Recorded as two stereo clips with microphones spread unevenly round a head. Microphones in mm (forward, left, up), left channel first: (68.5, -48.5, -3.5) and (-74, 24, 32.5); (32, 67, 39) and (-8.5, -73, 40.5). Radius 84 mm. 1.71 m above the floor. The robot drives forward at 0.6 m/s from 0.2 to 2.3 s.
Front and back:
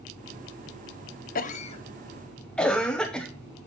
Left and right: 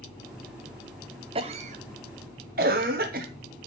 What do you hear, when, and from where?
1.4 s a cough: 60° right, 0.7 m; by 3.3 s 120° right, 0.7 m